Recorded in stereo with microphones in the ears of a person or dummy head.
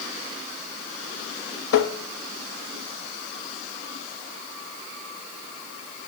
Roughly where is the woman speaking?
I don't hear a woman speaking.